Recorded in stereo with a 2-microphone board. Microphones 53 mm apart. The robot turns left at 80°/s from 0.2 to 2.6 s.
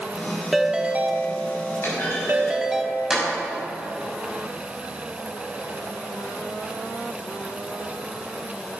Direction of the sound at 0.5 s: Straight ahead.